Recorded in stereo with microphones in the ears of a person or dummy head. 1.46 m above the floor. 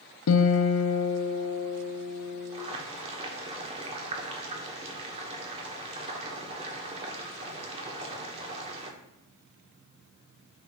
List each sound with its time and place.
0.3 s a guitar: 75° left (ahead or behind), 0.6 m
2.5 s boiling: 30° right (ahead or behind), 1.2 m